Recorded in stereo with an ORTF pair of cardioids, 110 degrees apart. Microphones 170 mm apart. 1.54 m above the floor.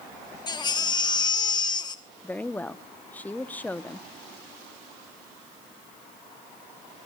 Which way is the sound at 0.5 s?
25° left.